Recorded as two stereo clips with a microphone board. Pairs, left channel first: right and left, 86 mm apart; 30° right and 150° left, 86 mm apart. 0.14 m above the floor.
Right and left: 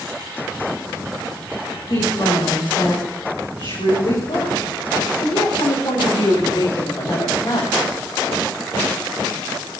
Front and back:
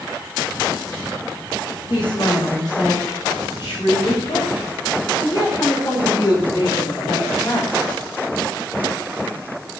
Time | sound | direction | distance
1.9 | a woman speaking | 65° right | 8.5 m